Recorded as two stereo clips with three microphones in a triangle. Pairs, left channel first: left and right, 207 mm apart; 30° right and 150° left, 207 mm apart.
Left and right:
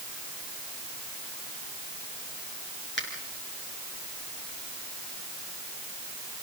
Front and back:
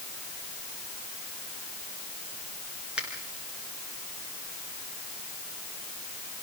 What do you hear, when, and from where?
3.0 s a finger snap: 65° left, 5.5 m